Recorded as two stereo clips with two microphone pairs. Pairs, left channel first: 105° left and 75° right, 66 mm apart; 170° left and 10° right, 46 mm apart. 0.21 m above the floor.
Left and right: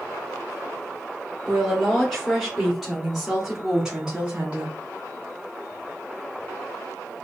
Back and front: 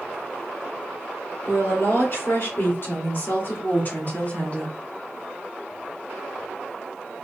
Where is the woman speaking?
175° right, 3 m; by 4.7 s 135° right, 1.6 m.